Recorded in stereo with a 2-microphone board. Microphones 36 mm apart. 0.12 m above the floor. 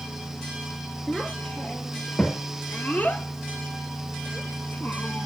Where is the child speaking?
20° left (ahead or behind), 1.9 m; by 5.3 s 55° left (ahead or behind), 2.0 m.